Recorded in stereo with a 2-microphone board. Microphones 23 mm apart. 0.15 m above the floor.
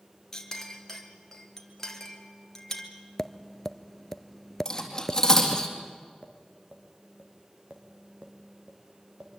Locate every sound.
0.3 s a clink: 20° left (ahead or behind), 2.5 m
3.2 s tapping: 20° left (ahead or behind), 0.7 m
4.7 s cutlery clinking: 25° left (ahead or behind), 3.5 m
6.2 s tapping: 45° right (ahead or behind), 4.5 m